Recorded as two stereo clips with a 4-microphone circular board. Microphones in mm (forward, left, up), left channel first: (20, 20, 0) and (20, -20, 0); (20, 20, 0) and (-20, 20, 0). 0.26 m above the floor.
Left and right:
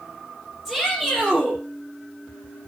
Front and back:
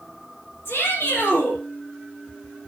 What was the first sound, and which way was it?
A shout, 5° right.